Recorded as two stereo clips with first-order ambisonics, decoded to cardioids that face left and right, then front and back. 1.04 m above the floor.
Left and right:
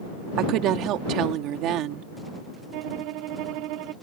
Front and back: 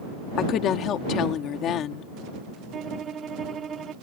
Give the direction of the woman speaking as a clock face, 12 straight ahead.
2 o'clock.